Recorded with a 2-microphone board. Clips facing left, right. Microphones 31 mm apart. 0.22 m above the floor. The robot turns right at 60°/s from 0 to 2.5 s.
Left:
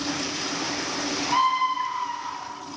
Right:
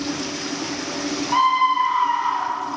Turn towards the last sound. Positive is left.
turn(degrees=-90)